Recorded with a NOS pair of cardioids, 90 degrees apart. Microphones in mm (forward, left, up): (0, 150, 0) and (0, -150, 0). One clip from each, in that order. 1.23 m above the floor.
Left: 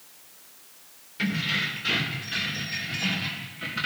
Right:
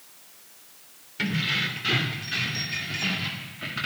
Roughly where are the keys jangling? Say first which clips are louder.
Right 1 dB; ahead.